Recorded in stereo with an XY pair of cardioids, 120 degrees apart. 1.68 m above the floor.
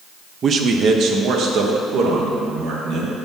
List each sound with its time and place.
0.4 s a man speaking: 40° right, 0.6 m; by 3.1 s 75° right, 2 m